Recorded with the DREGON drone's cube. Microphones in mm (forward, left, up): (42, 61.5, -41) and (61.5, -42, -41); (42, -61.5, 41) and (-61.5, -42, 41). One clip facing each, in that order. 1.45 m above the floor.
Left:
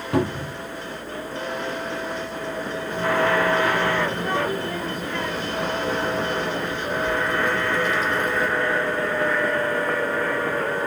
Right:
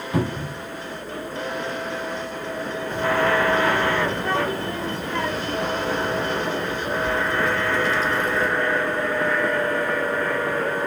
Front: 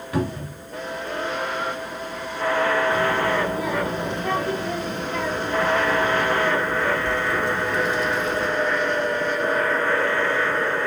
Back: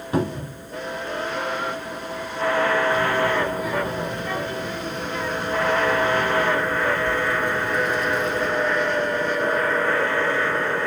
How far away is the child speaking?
About 2 m.